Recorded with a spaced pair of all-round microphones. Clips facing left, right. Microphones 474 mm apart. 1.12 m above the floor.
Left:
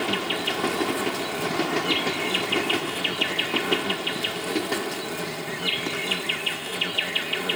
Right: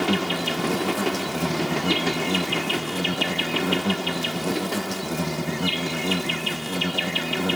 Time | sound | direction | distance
0.0 | an insect | 60° right (ahead or behind) | ?